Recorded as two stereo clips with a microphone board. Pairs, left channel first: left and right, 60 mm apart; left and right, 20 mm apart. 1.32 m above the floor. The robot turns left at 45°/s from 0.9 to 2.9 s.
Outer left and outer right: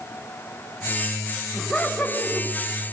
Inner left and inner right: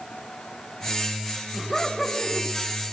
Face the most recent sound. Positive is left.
turn(degrees=120)